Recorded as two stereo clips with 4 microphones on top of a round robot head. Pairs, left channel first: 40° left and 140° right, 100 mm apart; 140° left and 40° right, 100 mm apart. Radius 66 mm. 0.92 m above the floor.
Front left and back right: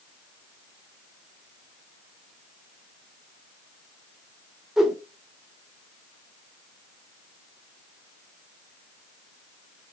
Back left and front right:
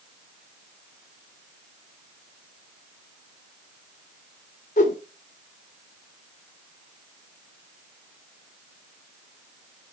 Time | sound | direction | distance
4.8 | a whoosh | 135° left | 1.2 m